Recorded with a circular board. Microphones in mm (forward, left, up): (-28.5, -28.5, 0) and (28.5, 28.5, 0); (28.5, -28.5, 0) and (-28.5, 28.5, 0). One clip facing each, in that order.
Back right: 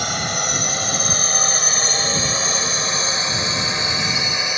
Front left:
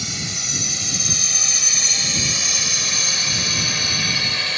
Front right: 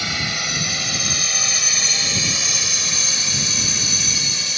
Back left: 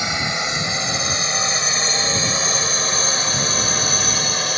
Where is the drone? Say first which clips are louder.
Back right 8 dB, back left 3 dB; 160° right; by 4.6 s 155° left.